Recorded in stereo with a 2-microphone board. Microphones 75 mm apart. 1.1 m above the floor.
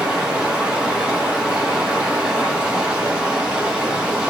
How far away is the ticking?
I don't hear ticking.